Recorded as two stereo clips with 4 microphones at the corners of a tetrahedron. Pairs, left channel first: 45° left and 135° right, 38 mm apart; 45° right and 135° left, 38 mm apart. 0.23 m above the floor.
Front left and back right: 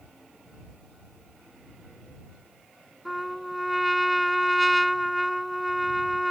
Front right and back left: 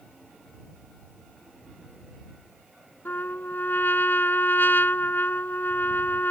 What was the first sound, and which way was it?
A trumpet, 45° right.